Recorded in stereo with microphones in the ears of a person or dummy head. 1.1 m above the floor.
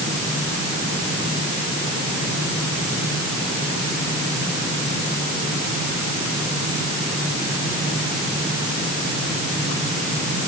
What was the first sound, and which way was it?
Only background noise.